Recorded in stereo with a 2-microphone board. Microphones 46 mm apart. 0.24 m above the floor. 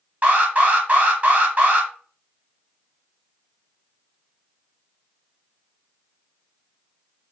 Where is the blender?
I don't hear a blender.